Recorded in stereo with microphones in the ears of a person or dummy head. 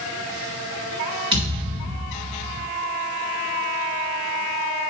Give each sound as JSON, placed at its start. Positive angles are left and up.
{"t": 1.3, "sound": "a thud", "side_deg": -25, "distance_m": 2.5}